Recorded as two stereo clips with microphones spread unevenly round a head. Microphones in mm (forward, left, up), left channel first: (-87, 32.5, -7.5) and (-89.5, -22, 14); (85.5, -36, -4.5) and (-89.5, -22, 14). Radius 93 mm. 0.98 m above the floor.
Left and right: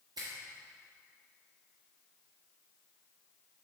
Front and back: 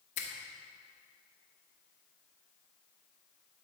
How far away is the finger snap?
About 1.1 m.